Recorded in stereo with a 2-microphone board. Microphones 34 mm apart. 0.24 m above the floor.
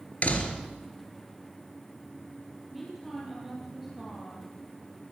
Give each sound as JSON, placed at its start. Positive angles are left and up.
{"t": 0.2, "sound": "a door slam", "side_deg": 50, "distance_m": 3.0}
{"t": 2.7, "sound": "a woman speaking", "side_deg": -5, "distance_m": 7.0}